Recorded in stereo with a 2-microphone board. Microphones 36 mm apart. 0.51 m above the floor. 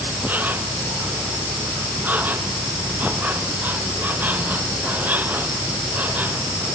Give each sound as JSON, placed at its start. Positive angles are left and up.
{"t": 0.0, "sound": "an insect", "side_deg": -55}